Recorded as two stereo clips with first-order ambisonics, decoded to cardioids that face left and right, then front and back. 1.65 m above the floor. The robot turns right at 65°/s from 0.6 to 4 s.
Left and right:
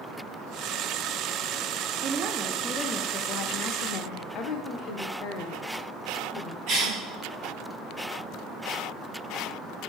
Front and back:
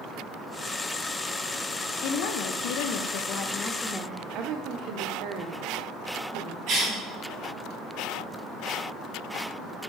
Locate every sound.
2.0 s a woman speaking: 40° right, 0.5 m; by 4.2 s 85° left, 0.5 m
4.3 s a woman speaking: 140° left, 0.5 m
6.7 s a cough: 125° right, 0.7 m